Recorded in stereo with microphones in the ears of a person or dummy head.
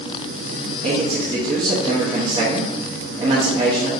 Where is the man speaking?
20° right (ahead or behind), 0.8 m.